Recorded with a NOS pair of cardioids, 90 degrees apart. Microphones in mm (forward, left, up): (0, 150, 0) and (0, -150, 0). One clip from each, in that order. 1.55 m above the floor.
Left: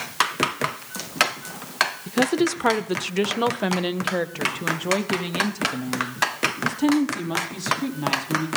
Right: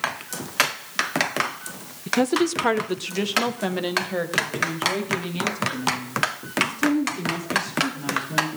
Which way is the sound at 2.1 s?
10° right.